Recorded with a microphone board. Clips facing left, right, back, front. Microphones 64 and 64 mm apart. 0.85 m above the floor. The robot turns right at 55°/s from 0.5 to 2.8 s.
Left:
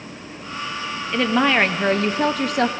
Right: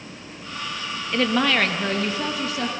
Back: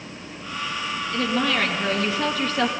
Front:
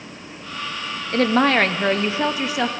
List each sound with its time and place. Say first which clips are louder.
1.1 s a woman speaking: left 3 dB, front 7 dB; straight ahead, 0.6 m; by 2.7 s 90° left, 0.6 m